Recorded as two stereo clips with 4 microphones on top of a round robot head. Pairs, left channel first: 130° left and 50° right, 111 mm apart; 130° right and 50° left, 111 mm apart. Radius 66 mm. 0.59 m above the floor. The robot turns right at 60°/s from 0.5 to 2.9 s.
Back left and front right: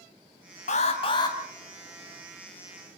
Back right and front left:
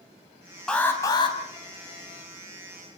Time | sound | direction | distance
0.7 | an alarm | 150° left | 4 m